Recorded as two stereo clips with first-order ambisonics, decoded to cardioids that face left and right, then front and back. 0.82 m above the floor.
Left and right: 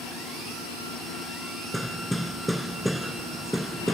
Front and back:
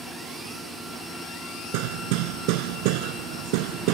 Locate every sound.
1.7 s hammering: straight behind